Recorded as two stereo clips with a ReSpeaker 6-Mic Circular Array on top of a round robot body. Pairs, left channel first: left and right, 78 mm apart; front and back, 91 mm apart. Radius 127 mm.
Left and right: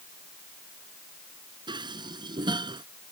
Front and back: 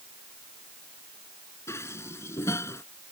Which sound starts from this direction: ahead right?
Dishes clattering, at 1.7 s.